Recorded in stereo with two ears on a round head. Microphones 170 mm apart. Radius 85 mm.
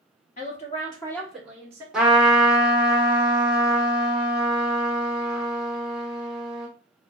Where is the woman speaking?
40° left (ahead or behind), 1.2 m; by 1.8 s 15° right (ahead or behind), 1.3 m.